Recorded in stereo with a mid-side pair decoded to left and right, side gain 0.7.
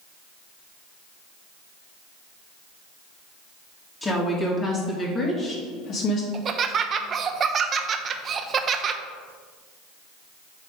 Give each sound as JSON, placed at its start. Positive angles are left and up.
{"t": 4.0, "sound": "a woman speaking", "azimuth_deg": 15, "distance_m": 2.5}
{"t": 6.3, "sound": "laughter", "azimuth_deg": -35, "distance_m": 0.8}